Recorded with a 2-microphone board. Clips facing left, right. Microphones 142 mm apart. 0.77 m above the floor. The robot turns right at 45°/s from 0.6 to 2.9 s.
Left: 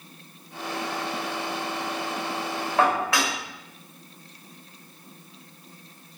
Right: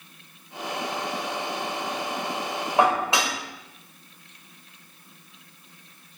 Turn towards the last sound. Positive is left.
turn(degrees=-20)  # may be behind; listen again after turning